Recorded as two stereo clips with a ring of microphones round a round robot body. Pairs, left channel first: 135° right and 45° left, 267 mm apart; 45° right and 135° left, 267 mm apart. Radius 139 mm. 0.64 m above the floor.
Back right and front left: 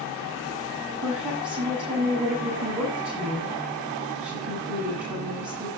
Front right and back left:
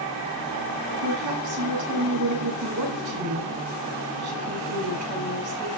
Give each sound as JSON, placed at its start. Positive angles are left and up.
{"t": 1.0, "sound": "a woman speaking", "azimuth_deg": 130, "distance_m": 8.0}